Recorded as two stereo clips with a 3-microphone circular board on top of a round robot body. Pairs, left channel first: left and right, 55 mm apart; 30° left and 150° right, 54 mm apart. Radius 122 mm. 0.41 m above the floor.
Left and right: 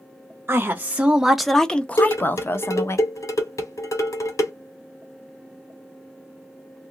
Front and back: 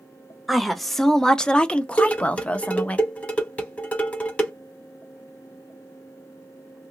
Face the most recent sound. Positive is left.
turn(degrees=95)